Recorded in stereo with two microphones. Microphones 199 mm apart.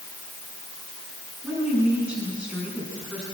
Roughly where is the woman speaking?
Centre.